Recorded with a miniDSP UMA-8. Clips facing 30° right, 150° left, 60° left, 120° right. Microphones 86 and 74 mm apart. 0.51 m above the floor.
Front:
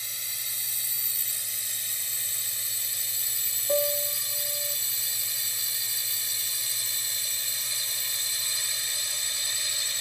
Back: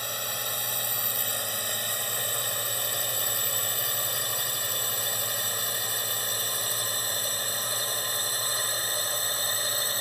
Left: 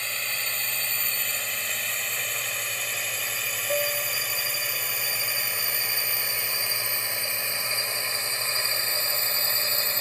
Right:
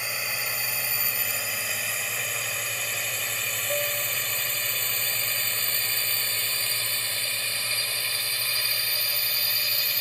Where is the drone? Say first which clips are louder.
Back 11 dB, right 1 dB; 160° left; by 10.0 s 115° left.